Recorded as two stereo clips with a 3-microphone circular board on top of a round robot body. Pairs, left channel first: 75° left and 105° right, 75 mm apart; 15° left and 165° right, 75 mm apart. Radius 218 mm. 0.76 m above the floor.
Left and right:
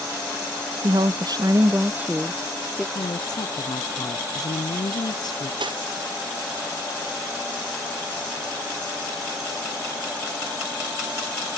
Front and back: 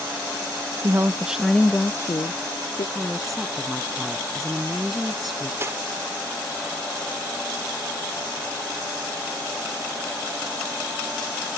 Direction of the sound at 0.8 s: 115° right.